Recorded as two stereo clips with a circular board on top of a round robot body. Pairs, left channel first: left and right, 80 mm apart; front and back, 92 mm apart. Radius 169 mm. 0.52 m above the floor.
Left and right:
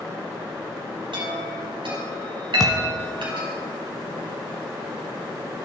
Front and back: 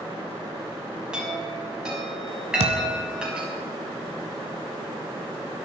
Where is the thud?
175° left, 1.4 m.